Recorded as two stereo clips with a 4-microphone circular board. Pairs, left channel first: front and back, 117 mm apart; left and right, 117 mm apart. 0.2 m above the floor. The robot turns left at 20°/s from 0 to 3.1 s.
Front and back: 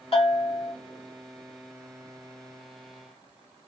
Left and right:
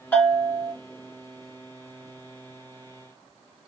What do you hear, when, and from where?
0.1 s a bell: 15° left, 2 m; by 0.7 s 5° left, 2 m